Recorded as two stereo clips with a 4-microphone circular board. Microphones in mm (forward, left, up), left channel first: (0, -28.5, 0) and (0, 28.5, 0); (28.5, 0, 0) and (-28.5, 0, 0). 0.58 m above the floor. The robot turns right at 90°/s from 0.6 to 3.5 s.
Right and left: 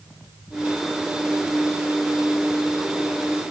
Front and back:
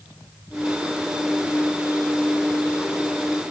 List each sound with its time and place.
Only background noise.